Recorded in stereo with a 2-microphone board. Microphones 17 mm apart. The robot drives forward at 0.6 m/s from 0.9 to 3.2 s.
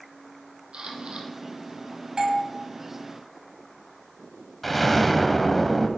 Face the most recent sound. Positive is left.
turn(degrees=5)  # may be behind; listen again after turning